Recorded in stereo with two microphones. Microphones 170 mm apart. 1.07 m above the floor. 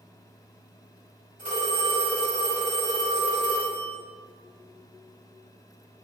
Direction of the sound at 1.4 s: 50° right (ahead or behind).